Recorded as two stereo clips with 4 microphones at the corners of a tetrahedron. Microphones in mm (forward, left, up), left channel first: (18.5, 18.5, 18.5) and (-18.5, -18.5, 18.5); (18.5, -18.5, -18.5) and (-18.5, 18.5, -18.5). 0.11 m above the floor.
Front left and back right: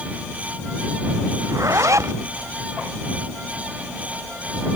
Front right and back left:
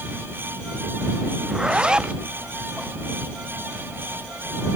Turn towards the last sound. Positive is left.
turn(degrees=-150)